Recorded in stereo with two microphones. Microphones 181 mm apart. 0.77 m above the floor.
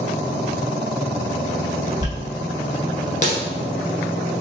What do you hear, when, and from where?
2.0 s a dropped coin: 40° left (ahead or behind), 0.9 m